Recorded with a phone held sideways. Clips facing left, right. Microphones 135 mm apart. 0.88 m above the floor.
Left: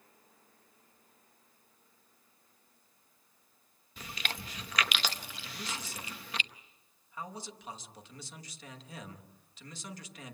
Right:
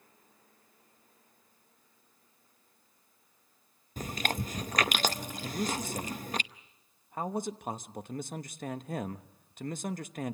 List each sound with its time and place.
4.0 s chewing: 45° right (ahead or behind), 0.7 m
5.4 s a man speaking: 50° right (ahead or behind), 1.0 m